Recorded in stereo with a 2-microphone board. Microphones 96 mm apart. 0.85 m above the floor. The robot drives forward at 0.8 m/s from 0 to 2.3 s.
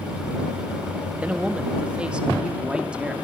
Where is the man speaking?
15° right (ahead or behind), 1.5 m; by 3.1 s 10° right (ahead or behind), 2.5 m.